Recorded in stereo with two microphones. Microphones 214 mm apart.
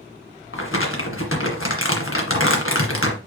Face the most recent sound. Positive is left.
turn(degrees=80)